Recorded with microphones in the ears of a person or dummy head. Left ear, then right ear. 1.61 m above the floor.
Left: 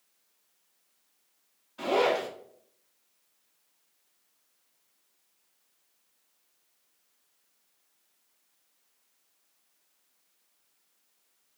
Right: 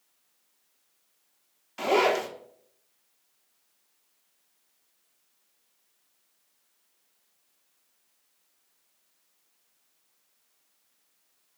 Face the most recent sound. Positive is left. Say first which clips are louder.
# right 2 dB
turn(degrees=-65)  # may be behind; listen again after turning